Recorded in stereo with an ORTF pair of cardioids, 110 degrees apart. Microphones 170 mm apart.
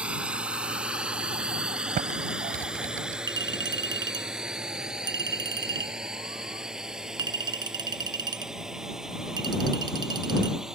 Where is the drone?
5° right.